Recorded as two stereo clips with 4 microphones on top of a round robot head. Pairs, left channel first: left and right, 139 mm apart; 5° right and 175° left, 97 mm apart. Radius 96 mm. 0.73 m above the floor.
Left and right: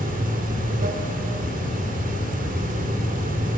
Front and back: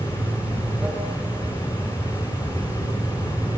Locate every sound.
0.0 s running water: 105° right, 2.0 m